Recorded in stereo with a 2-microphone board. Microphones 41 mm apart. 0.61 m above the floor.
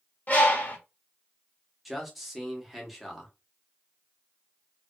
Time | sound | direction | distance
0.3 | a bird | 45° left (ahead or behind) | 0.9 m
1.9 | a man speaking | centre (ahead or behind) | 0.8 m